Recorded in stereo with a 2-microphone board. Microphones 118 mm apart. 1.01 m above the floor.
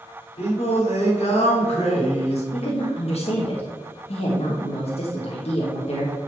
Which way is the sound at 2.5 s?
65° left (ahead or behind).